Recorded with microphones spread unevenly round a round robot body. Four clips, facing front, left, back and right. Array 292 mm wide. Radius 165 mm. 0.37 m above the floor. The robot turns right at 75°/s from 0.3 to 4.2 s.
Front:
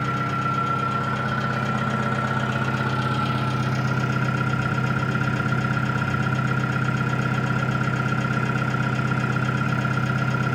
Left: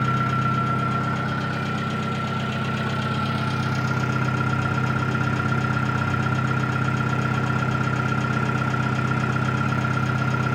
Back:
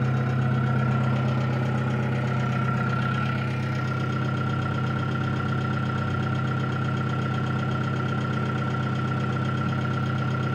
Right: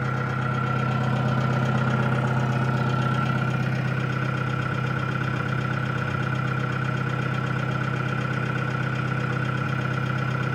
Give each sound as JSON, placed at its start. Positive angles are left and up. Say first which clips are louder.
{"t": 0.0, "sound": "an engine running", "louder": "left 5 dB, front 2 dB", "azimuth_deg": 130, "distance_m": 0.9}